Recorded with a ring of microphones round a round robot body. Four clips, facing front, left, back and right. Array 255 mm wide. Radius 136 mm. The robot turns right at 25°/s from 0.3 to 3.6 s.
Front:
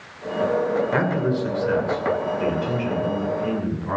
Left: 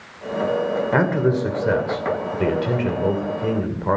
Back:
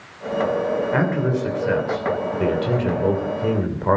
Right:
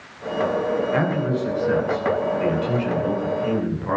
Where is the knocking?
No knocking in this recording.